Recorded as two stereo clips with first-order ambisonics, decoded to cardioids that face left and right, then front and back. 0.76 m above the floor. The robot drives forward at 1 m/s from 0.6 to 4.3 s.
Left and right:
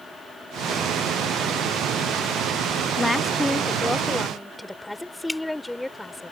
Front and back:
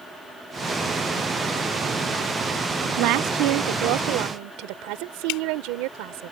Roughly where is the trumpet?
I don't hear a trumpet.